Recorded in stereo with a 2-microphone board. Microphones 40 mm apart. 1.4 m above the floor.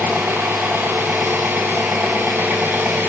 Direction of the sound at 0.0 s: 65° right (ahead or behind).